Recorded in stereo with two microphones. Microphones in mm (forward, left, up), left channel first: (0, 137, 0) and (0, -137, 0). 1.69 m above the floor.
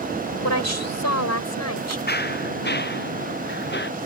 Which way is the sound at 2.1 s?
40° left (ahead or behind).